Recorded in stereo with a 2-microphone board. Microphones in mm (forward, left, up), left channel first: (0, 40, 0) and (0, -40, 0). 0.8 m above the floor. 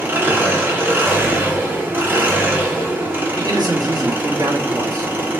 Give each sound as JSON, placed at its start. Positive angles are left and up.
{"t": 0.0, "sound": "an engine running", "side_deg": -25, "distance_m": 1.1}
{"t": 3.4, "sound": "a man speaking", "side_deg": -55, "distance_m": 1.3}